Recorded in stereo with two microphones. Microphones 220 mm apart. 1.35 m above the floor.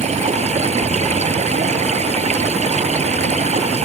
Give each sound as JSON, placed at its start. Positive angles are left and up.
{"t": 0.0, "sound": "running water", "side_deg": -30}